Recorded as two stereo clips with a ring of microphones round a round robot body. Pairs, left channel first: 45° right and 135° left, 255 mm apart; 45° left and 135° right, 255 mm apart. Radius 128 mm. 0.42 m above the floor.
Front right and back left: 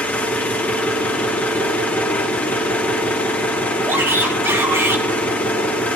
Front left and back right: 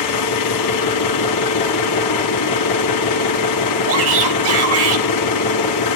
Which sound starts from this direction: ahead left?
An engine running, at 0.0 s.